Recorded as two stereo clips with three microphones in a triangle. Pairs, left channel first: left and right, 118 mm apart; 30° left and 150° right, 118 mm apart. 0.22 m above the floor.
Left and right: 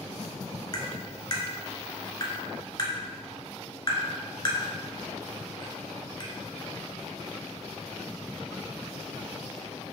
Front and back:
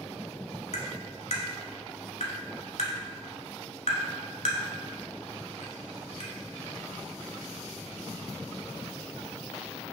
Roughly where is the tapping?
Ahead left.